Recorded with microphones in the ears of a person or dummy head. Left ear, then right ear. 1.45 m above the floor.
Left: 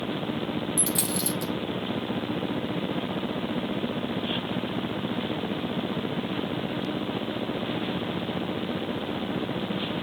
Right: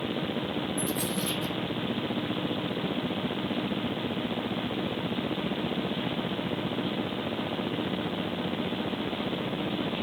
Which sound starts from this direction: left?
A dropped coin, at 0.8 s.